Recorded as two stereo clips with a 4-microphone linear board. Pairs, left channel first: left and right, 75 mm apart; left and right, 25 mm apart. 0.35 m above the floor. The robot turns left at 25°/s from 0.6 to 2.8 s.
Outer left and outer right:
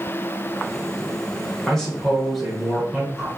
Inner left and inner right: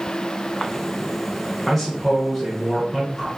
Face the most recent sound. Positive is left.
turn(degrees=-5)  # may be behind; listen again after turning